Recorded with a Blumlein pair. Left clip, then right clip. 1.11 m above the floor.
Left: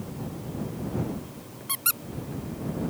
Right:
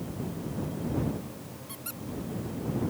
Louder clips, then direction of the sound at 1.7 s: Left 15 dB; 55° left.